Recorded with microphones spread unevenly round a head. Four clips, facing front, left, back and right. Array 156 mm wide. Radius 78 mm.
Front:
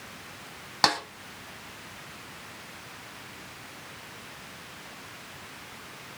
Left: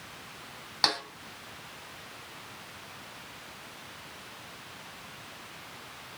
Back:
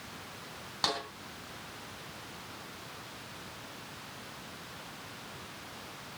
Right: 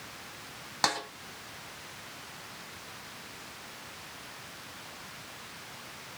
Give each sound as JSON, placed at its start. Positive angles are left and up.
{"t": 0.8, "sound": "a snare drum", "azimuth_deg": -10, "distance_m": 3.0}